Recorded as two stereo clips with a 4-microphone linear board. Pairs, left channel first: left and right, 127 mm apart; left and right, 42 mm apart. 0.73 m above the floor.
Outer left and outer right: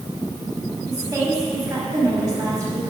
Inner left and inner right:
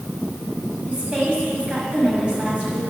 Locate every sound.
0.9 s a woman speaking: 30° right (ahead or behind), 5.5 m